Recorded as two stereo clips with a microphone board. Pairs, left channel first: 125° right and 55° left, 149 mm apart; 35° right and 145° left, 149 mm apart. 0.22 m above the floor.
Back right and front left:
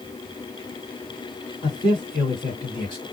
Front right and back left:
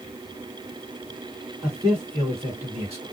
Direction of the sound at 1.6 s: 160° right.